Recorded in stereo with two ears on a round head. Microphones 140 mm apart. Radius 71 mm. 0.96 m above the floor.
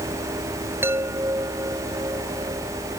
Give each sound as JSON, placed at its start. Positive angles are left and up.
{"t": 0.8, "sound": "a chime", "side_deg": -15}